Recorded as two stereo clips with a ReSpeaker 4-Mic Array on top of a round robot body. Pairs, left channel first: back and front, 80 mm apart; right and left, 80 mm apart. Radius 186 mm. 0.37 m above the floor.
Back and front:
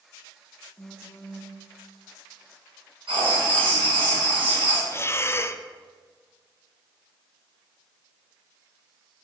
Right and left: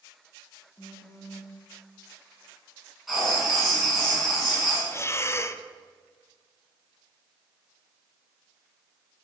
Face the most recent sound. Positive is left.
turn(degrees=-135)